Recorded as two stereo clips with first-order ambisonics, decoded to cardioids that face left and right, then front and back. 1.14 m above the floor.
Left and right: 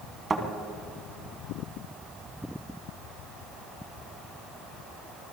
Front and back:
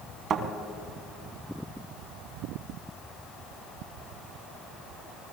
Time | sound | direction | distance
0.3 | a thud | 150° right | 1.2 m